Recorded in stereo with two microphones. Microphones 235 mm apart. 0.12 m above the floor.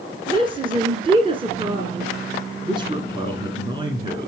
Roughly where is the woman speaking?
Right.